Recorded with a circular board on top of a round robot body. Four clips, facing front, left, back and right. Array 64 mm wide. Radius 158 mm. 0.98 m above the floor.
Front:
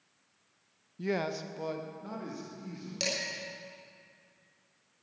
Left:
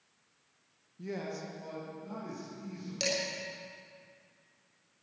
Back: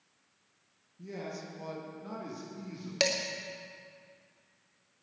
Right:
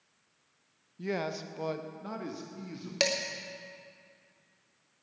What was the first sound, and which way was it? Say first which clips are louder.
A man speaking: right 5 dB, front 8 dB; 25° right.